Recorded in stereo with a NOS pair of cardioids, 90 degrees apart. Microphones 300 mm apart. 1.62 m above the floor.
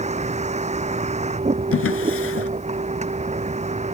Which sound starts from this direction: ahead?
A vehicle, at 0.0 s.